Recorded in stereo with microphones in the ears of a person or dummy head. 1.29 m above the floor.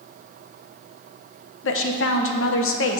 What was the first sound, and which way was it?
A woman speaking, 70° left (ahead or behind).